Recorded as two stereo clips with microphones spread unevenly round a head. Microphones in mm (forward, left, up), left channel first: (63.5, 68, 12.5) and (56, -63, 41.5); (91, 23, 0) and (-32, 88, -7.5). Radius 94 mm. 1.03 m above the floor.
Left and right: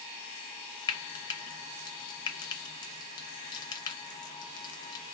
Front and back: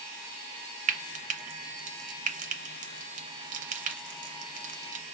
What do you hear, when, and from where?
0.9 s frying: 135° left, 0.5 m